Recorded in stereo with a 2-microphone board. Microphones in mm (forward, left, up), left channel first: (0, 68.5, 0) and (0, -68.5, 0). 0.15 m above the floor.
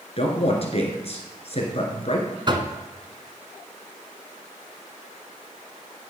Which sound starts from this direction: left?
A man speaking, at 0.2 s.